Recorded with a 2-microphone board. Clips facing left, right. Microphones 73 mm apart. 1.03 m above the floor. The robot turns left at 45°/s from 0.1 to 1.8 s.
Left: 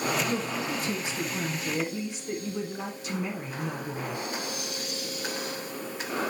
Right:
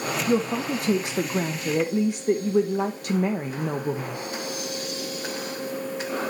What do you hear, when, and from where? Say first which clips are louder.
0.3 s a woman speaking: right 7 dB; 45° right, 0.7 m; by 4.2 s 115° right, 0.7 m